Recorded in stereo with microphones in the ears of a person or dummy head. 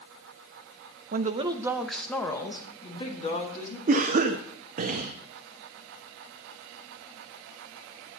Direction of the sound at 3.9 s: 50° right (ahead or behind).